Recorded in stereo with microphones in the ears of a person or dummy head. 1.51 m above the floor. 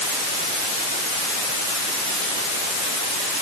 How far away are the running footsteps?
No running footsteps in this recording.